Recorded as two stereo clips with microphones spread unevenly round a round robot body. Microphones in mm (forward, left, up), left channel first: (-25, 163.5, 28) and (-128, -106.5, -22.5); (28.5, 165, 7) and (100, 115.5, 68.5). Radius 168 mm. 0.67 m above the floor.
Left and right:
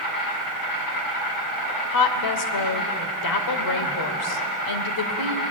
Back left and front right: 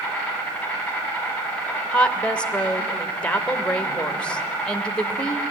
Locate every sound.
0.0 s an insect: 70° left, 7.5 m
1.9 s a woman speaking: 75° left, 2 m